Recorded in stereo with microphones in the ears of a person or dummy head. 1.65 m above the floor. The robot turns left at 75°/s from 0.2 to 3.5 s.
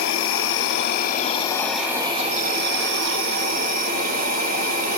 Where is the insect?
115° left, 1.0 m; by 5.0 s 130° right, 1.0 m.